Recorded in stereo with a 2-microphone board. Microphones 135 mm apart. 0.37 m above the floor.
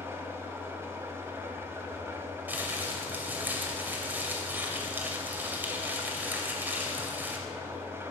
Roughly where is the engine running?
Centre.